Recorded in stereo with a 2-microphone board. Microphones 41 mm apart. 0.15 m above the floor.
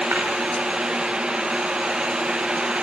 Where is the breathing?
No breathing in this recording.